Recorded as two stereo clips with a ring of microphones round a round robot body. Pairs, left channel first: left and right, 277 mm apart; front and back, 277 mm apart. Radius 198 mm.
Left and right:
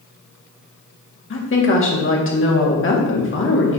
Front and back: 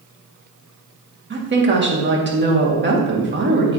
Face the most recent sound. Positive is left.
turn(degrees=130)